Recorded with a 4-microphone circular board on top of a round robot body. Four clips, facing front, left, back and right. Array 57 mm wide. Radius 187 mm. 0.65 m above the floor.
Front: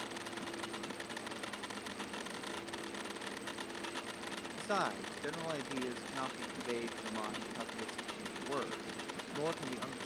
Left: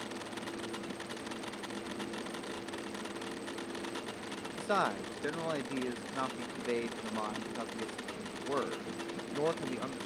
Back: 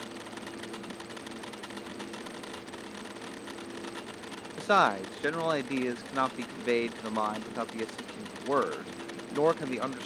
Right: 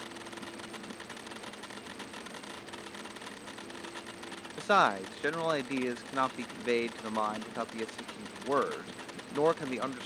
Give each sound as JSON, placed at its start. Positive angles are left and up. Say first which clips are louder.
{"t": 4.6, "sound": "a man speaking", "louder": "right 6 dB, back 12 dB", "azimuth_deg": -140}